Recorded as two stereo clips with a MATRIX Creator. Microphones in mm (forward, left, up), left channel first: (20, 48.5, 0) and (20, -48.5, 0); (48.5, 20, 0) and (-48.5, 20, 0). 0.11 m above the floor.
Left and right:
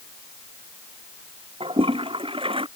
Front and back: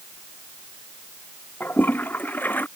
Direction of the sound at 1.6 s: 70° right.